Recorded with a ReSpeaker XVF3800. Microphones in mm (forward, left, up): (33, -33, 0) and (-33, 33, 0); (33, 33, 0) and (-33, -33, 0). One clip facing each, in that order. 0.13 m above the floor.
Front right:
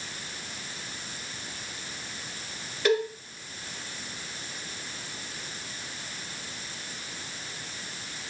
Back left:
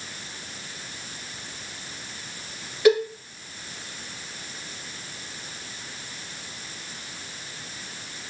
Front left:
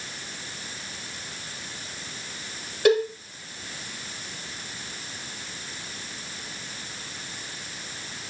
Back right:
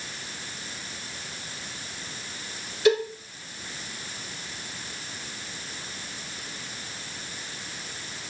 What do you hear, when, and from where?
2.9 s a cowbell: 60° left, 2 m